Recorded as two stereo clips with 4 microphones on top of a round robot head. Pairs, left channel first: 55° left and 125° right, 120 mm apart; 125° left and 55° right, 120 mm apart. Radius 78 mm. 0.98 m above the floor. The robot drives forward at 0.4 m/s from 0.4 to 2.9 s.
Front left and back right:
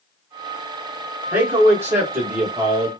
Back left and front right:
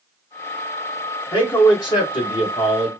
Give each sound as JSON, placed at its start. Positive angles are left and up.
{"t": 1.3, "sound": "a man speaking", "azimuth_deg": 165, "distance_m": 1.1}